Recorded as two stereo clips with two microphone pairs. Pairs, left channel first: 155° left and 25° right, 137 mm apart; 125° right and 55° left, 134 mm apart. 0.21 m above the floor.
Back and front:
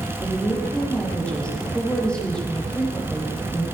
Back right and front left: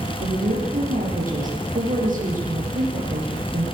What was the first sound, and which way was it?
A woman speaking, 70° left.